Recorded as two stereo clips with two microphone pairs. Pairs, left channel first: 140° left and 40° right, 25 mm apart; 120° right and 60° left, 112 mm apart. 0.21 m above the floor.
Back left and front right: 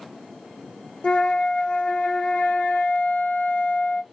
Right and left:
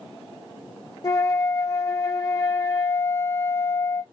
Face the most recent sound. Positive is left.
turn(degrees=180)